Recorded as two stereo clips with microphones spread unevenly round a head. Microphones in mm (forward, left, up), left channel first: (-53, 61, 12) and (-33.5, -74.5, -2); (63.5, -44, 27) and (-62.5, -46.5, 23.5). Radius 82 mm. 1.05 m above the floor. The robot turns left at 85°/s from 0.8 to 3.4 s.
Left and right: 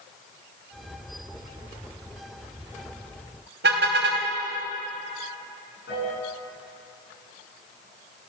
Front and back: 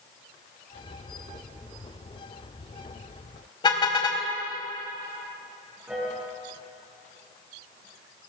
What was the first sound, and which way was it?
A car horn, 55° right.